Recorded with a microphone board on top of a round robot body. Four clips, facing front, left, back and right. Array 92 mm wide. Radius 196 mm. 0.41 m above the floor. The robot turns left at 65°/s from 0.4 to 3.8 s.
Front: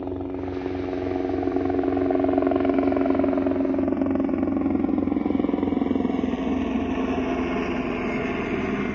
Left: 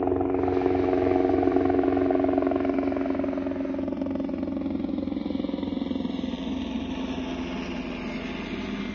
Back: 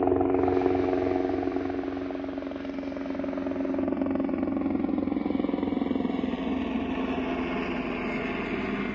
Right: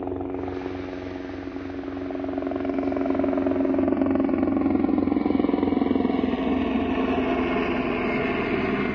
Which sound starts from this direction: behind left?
A helicopter, at 0.0 s.